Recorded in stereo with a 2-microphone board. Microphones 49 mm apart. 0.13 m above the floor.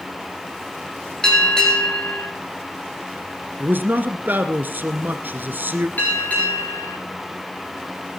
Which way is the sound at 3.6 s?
40° right (ahead or behind).